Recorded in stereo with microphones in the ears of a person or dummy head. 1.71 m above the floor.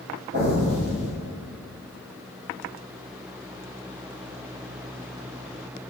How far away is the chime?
I don't hear a chime.